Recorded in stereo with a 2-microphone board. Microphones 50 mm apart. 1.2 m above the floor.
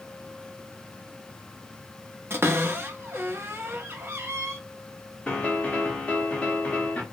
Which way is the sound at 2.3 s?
50° right (ahead or behind).